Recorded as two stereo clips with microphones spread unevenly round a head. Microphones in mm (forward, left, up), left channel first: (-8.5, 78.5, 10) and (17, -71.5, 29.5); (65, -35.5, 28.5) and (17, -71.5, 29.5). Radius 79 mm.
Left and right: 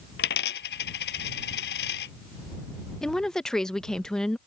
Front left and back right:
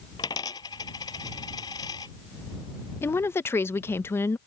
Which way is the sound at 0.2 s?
85° left.